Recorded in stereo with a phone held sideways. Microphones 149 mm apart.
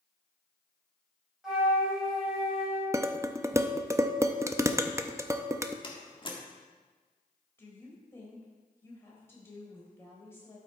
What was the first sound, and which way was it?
A flute, 5° right (ahead or behind).